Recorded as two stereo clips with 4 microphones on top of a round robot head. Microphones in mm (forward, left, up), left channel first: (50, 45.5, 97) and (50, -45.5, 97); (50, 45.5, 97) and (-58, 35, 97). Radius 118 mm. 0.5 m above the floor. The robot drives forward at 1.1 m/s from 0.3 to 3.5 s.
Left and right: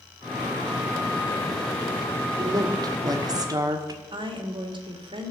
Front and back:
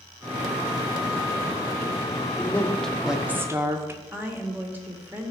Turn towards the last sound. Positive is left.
turn(degrees=-105)